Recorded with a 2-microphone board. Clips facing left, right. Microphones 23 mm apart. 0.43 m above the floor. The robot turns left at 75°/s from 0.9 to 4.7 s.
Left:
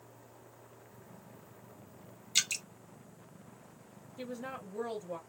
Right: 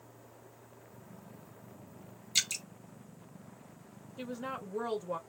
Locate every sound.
2.4 s dripping: 10° left (ahead or behind), 0.9 m; by 2.6 s 20° left (ahead or behind), 0.9 m
4.2 s a woman speaking: 20° right, 1.8 m; by 5.2 s 60° right, 1.8 m